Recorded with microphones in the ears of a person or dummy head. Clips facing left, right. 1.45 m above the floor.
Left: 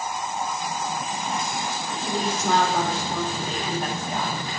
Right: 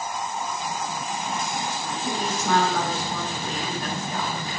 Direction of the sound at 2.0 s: 25° left (ahead or behind).